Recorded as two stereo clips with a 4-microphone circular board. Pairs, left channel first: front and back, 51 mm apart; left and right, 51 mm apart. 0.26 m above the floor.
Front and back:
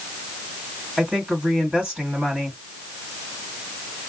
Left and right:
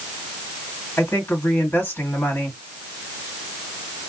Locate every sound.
1.0 s a woman speaking: 110° left, 3 m